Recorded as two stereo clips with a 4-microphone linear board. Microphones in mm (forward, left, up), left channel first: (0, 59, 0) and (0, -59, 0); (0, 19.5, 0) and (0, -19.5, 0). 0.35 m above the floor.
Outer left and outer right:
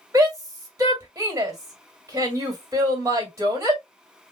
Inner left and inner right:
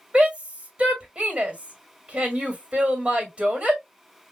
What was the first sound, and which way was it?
A shout, 25° right (ahead or behind).